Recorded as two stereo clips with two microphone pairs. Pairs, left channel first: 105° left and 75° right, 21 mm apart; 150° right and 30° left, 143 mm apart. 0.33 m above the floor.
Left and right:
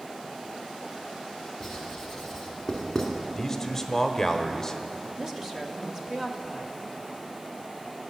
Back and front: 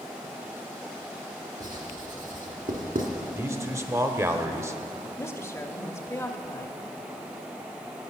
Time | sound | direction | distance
1.6 | writing | 15° left | 2 m
3.4 | a man speaking | 65° left | 0.9 m
5.2 | a woman speaking | 120° right | 0.9 m